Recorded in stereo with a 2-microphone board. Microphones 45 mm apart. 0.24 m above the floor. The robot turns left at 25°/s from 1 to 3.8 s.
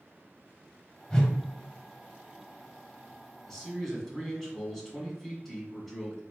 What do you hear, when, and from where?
1.1 s a whoosh: 20° left (ahead or behind), 1.0 m
3.5 s a man speaking: 10° left (ahead or behind), 2.0 m; by 6.2 s 5° left (ahead or behind), 2.0 m